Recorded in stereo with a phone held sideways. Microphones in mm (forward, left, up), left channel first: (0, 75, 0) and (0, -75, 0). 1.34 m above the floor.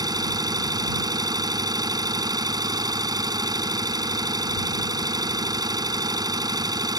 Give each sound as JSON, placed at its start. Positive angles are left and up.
{"t": 0.0, "sound": "an engine running", "side_deg": -25}